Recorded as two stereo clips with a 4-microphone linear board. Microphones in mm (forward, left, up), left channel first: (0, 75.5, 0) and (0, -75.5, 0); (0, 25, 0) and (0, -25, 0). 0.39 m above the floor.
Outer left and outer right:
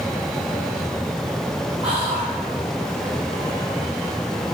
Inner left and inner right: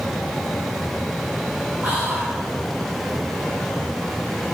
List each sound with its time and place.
1.8 s whispering: 40° right (ahead or behind), 2.0 m